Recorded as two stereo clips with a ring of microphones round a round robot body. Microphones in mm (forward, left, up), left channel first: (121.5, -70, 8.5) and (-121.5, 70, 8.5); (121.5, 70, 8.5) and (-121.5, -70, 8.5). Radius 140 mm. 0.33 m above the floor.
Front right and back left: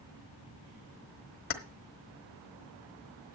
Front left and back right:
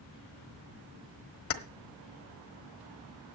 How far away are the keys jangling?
About 1.2 m.